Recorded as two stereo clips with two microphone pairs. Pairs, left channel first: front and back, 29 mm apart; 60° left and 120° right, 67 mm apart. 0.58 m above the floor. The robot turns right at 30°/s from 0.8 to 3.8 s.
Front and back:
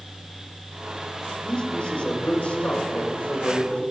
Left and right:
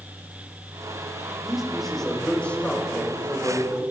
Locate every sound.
1.4 s a man speaking: 40° right, 3 m; by 3.8 s 30° left, 3 m